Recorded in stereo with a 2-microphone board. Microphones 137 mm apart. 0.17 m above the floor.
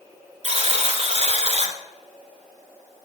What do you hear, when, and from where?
0.4 s a buzzer: 55° right (ahead or behind), 0.8 m